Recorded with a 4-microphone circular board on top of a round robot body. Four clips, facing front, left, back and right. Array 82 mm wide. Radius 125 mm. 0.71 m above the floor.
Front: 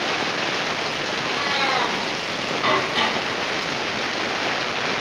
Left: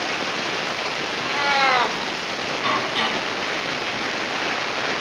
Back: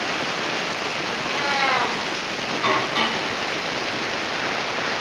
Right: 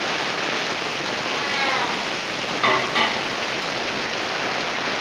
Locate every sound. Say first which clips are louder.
1.2 s a cat meowing: left 6 dB, back 1 dB; 105° left, 0.7 m
2.6 s dishes clattering: right 4 dB, front 1 dB; 80° right, 3 m